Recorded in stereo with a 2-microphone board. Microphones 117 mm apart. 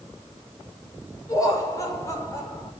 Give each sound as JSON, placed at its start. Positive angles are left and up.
{"t": 1.3, "sound": "laughter", "side_deg": 30, "distance_m": 6.5}